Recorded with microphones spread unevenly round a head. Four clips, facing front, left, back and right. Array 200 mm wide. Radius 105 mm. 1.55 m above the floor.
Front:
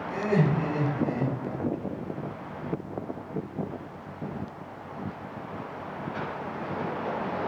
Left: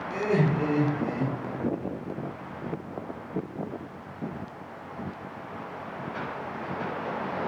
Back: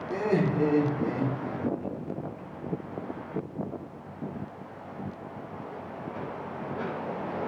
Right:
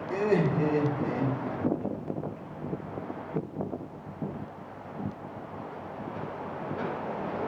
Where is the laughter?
175° right, 4.5 m.